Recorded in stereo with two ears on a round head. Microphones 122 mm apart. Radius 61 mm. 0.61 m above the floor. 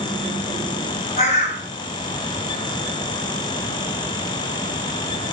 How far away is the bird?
About 3 m.